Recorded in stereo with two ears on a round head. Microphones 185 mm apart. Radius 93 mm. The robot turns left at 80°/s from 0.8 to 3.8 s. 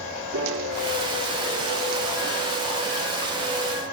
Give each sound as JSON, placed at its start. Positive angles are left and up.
{"t": 0.3, "sound": "a piano", "azimuth_deg": -65, "distance_m": 8.0}